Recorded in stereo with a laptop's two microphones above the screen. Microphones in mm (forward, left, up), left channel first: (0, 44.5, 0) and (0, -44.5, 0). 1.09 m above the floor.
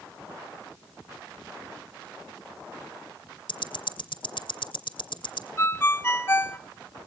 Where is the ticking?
70° left (ahead or behind), 2.5 m.